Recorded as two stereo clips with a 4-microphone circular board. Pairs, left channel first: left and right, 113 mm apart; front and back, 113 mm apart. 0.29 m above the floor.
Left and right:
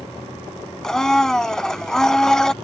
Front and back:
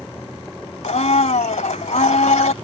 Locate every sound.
0.8 s a blender: 5° left